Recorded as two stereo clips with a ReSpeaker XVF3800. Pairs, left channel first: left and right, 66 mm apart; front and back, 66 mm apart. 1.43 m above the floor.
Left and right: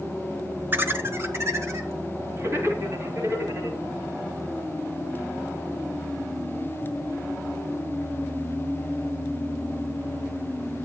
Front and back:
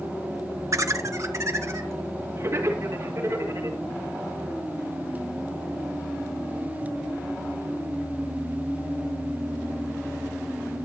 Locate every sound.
0.7 s laughter: 145° right, 1.0 m; by 3.8 s 135° right, 4.5 m